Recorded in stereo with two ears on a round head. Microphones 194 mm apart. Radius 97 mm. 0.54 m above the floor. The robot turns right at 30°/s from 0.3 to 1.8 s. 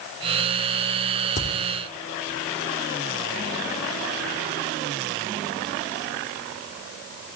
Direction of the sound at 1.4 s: 35° left (ahead or behind).